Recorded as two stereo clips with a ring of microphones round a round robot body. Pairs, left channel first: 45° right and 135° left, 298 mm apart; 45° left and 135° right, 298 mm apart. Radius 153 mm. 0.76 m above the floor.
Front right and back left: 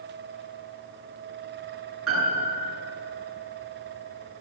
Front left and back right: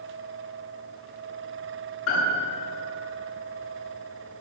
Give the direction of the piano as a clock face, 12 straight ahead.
9 o'clock.